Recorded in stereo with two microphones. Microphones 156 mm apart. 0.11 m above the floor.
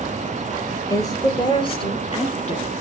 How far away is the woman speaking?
About 2 m.